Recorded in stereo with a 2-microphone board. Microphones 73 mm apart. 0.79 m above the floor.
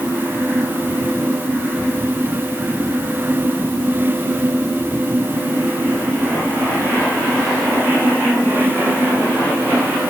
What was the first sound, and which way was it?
Only background noise.